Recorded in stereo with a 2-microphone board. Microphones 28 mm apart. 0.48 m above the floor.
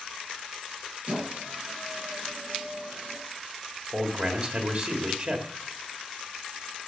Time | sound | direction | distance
1.1 | a squeak | 55° right (ahead or behind) | 6 m
3.9 | a man speaking | 45° right (ahead or behind) | 2 m